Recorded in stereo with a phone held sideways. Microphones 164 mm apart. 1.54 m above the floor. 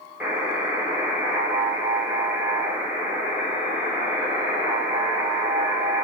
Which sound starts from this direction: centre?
A buzzer, at 0.2 s.